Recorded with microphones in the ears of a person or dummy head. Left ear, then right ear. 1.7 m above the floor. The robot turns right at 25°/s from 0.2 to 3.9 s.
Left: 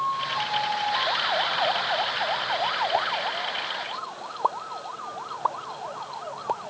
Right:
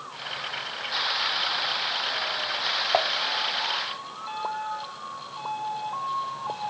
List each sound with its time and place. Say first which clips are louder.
2.9 s dishes clattering: right 4 dB; 60° right (ahead or behind); by 3.1 s 65° right (ahead or behind)
4.4 s a pop: left 5 dB; 55° left (ahead or behind)